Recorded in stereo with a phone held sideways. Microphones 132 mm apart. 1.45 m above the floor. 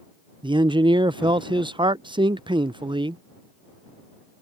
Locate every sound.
0.4 s a man speaking: 35° right (ahead or behind)